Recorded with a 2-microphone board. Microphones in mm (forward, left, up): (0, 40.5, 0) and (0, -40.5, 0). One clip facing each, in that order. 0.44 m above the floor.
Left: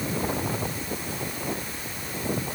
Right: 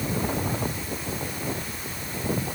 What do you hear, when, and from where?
Only background noise.